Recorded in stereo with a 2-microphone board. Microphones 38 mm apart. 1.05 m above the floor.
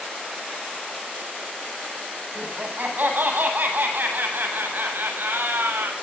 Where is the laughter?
50° right (ahead or behind), 9.5 m; by 5.9 s 70° right (ahead or behind), 7 m.